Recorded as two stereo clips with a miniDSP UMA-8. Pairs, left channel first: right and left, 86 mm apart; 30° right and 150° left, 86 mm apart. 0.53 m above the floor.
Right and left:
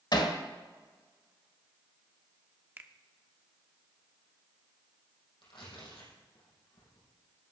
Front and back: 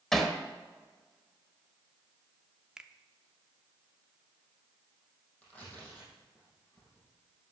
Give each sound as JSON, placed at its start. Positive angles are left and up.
{"t": 0.1, "sound": "hammering", "azimuth_deg": -115, "distance_m": 1.5}
{"t": 2.8, "sound": "a finger snap", "azimuth_deg": 80, "distance_m": 0.8}
{"t": 5.4, "sound": "tearing paper", "azimuth_deg": -105, "distance_m": 5.5}